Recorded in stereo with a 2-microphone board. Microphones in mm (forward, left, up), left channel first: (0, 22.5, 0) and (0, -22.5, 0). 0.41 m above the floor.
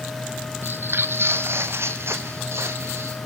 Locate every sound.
0.6 s footsteps: 50° right (ahead or behind), 0.8 m; by 3.2 s 65° right (ahead or behind), 2 m